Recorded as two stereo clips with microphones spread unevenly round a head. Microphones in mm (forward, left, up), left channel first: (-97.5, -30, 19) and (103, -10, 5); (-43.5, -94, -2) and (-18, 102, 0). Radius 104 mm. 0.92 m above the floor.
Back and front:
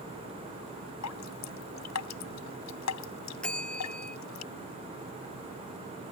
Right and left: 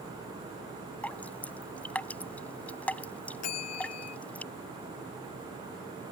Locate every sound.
1.0 s dripping: straight behind
3.4 s a bell: 90° right